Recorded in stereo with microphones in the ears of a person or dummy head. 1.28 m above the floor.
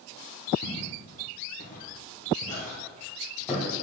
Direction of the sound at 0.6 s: 55° left (ahead or behind).